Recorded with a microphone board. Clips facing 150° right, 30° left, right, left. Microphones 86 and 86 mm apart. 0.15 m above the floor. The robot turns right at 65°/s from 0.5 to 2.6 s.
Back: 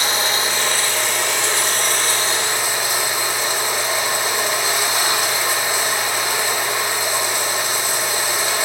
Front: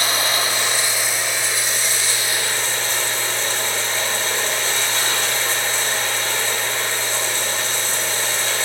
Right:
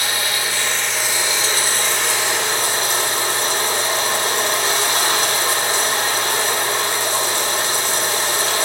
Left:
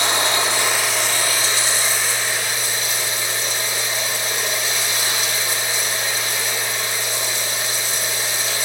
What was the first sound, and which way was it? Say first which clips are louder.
Running water: back 1 dB, left 4 dB; 155° left.